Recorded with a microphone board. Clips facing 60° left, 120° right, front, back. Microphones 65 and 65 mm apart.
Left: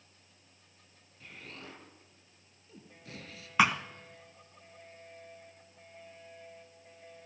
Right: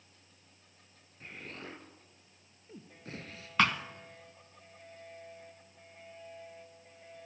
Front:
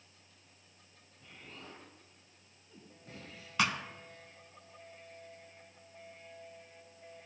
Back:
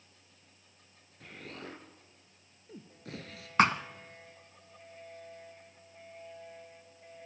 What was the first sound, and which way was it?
An explosion, 175° right.